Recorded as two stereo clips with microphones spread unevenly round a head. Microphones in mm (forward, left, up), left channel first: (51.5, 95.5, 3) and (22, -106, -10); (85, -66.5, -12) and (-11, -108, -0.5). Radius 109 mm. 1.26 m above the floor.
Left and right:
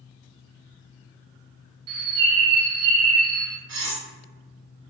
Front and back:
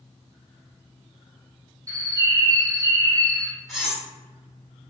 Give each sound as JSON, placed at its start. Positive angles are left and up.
{"t": 1.9, "sound": "a bird", "azimuth_deg": -105, "distance_m": 0.8}
{"t": 3.7, "sound": "cutlery clinking", "azimuth_deg": -70, "distance_m": 1.0}